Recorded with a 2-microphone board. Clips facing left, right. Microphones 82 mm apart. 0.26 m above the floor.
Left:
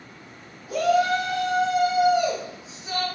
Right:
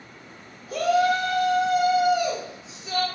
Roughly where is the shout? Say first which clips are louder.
Even; centre.